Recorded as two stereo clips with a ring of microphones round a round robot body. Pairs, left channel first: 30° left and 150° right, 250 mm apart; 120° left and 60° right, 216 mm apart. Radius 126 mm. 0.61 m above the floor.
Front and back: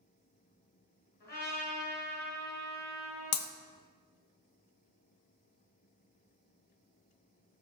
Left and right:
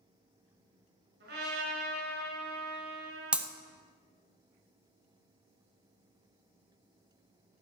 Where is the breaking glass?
25° left, 1.3 m.